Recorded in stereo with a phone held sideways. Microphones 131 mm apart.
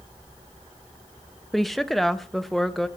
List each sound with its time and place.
1.5 s a woman speaking: centre (ahead or behind), 0.6 m